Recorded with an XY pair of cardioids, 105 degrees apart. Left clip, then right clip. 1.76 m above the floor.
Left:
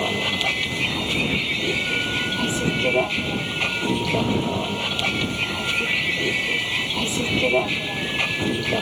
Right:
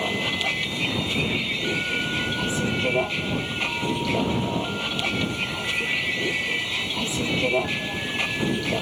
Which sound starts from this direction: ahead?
A vehicle, at 0.0 s.